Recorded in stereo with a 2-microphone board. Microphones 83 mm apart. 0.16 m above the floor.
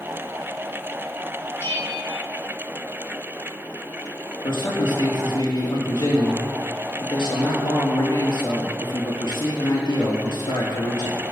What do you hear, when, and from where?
1.6 s a bell: 30° left (ahead or behind), 1.6 m
4.4 s a man speaking: 70° left (ahead or behind), 4.5 m